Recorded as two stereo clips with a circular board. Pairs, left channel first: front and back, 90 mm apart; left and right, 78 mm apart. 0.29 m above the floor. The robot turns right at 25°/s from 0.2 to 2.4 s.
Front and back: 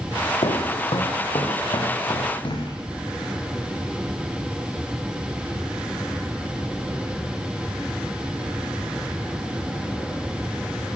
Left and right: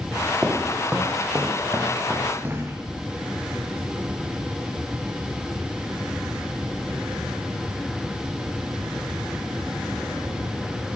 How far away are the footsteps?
About 1.9 m.